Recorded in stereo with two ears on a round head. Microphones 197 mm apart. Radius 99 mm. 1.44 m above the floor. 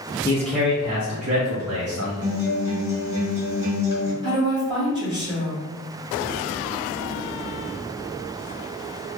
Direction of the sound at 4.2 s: 20° right (ahead or behind).